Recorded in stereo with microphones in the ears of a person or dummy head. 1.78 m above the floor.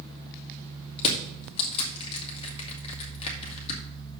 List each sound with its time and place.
1.0 s crushing: 35° left (ahead or behind), 1.8 m